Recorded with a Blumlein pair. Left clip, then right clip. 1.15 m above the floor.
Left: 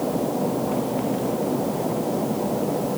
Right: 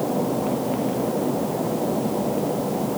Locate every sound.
Only background noise.